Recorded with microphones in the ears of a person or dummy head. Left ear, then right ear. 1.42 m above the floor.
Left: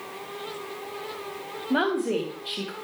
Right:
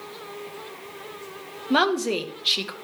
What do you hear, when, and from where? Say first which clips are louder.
1.7 s a woman speaking: right 3 dB; 35° right (ahead or behind), 1.2 m